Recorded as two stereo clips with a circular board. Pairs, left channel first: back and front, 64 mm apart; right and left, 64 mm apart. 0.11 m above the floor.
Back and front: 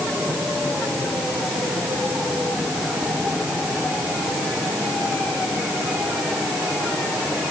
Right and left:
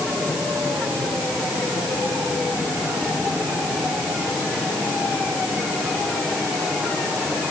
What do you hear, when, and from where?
Only background noise.